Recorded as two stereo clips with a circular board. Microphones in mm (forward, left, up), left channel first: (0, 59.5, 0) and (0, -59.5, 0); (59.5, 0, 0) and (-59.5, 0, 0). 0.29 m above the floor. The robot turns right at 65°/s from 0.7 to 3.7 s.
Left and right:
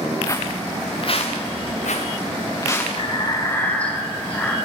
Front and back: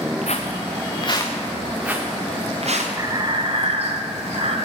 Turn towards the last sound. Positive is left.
turn(degrees=165)